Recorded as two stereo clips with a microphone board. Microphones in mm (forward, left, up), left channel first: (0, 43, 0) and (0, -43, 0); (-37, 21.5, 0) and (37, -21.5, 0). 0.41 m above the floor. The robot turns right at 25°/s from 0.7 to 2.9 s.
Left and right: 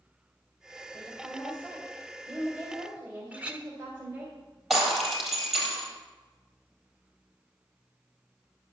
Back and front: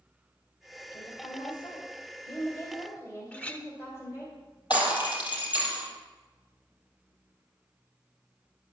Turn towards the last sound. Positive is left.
turn(degrees=180)